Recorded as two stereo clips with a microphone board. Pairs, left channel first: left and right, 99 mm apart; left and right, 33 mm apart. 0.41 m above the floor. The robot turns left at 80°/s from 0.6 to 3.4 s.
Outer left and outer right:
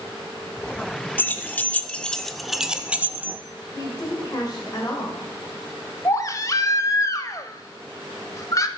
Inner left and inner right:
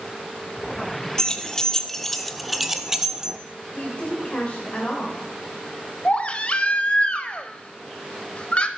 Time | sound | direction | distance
1.2 | keys jangling | 20° left (ahead or behind) | 0.5 m
3.7 | a woman speaking | 40° left (ahead or behind) | 1.7 m
6.0 | a baby crying | 35° left (ahead or behind) | 0.6 m